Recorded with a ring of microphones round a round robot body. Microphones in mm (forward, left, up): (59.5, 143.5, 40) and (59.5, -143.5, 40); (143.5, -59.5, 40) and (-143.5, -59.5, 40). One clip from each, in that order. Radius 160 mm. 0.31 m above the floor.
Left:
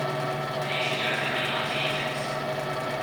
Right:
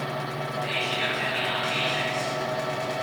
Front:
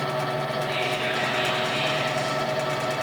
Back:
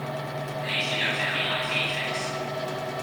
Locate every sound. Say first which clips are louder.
0.6 s whispering: right 1 dB, back 4 dB; 130° right, 2.5 m